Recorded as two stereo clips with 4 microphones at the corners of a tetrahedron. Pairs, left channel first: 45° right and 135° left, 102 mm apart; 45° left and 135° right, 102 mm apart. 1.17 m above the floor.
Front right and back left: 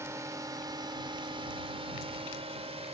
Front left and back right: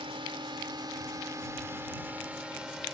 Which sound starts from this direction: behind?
A drone, at 0.0 s.